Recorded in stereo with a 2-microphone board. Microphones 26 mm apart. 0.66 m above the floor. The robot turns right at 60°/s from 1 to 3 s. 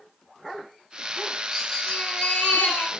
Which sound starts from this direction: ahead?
A baby crying, at 1.5 s.